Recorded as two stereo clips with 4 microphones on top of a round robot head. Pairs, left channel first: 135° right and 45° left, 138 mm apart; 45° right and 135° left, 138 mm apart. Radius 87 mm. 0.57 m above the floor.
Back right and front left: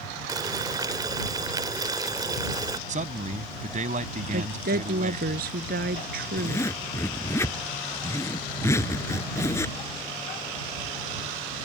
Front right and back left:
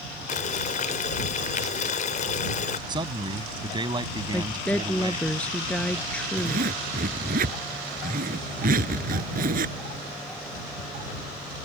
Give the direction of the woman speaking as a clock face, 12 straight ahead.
11 o'clock.